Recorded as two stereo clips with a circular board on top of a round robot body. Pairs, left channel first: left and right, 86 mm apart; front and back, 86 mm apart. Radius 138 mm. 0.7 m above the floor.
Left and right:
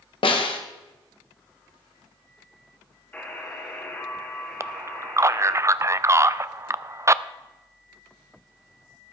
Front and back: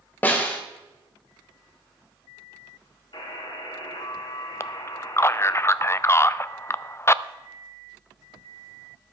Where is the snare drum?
70° left, 1.5 m.